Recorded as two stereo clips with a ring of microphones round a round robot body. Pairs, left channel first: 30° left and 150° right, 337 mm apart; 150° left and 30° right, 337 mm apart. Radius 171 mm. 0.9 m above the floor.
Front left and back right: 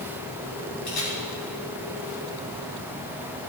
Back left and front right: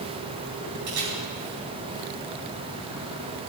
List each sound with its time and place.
0.9 s a camera shutter: 10° right, 4.5 m